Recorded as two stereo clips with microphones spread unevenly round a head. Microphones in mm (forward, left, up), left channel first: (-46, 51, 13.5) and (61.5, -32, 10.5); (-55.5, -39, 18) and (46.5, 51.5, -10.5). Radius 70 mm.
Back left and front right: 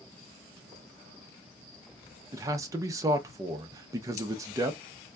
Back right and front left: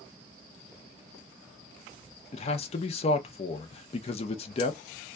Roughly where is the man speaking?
Right.